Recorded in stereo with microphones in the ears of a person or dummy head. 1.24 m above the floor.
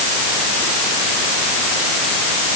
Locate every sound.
Only background noise.